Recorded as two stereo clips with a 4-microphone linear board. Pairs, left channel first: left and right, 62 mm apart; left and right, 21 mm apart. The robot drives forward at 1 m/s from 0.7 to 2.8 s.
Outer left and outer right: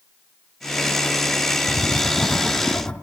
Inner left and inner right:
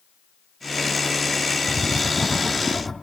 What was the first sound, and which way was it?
Writing, 40° left (ahead or behind).